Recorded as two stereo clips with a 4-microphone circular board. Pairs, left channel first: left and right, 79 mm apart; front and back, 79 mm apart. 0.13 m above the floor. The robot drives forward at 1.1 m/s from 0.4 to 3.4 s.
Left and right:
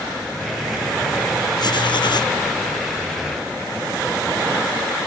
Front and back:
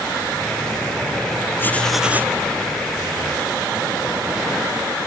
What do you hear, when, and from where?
1.6 s writing: 60° left, 0.8 m; by 2.4 s 120° left, 0.9 m